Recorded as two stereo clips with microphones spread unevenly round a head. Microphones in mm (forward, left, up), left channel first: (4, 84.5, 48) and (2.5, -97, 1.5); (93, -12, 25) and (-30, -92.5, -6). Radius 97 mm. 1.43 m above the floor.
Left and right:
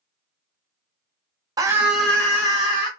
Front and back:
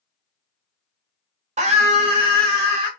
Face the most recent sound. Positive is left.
turn(degrees=160)